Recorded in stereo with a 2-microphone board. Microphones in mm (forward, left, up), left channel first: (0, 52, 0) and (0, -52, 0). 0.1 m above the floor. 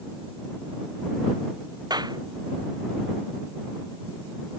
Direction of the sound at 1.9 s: 45° right (ahead or behind).